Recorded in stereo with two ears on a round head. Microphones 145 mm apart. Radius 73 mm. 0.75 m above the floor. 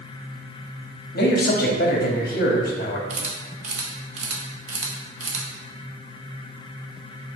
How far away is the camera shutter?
About 0.9 m.